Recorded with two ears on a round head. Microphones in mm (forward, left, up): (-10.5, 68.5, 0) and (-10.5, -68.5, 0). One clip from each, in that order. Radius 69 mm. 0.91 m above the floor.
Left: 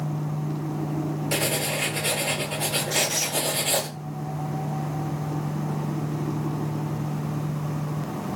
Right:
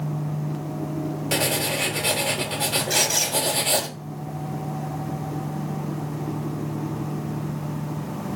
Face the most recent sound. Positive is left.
turn(degrees=-35)  # may be behind; listen again after turning